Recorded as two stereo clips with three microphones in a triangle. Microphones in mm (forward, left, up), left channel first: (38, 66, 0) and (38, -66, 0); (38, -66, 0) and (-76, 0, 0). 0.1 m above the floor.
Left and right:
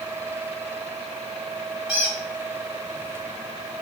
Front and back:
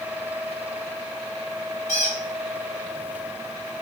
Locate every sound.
1.9 s a squeak: 5° right, 1.3 m